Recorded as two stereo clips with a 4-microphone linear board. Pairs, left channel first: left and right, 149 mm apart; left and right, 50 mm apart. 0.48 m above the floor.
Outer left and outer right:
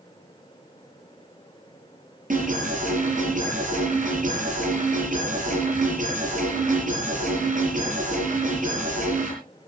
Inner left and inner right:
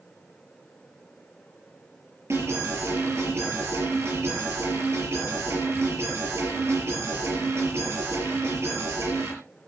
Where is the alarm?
65° right (ahead or behind), 6 m.